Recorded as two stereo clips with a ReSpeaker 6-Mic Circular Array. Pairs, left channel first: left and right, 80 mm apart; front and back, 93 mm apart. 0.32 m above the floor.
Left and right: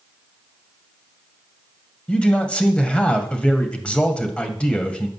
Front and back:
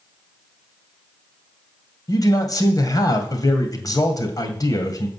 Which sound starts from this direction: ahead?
A man speaking, at 2.1 s.